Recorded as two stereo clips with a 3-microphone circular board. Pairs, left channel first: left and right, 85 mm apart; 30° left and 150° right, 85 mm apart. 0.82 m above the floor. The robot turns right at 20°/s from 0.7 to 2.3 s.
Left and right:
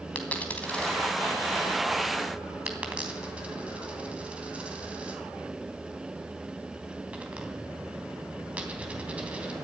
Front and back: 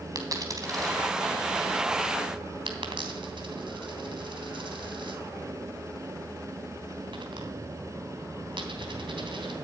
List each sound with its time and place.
0.1 s a dropped coin: 165° left, 2.5 m; by 9.6 s 165° right, 2.5 m